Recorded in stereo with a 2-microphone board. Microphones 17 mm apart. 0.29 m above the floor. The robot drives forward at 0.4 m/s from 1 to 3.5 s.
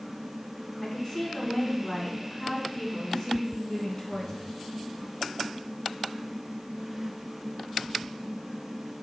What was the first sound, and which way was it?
A woman speaking, 25° left (ahead or behind).